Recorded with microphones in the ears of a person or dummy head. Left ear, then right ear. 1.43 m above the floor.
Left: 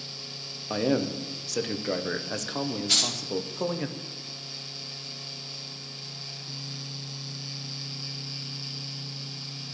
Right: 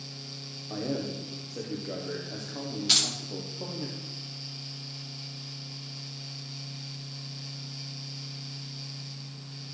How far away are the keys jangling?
About 1.8 m.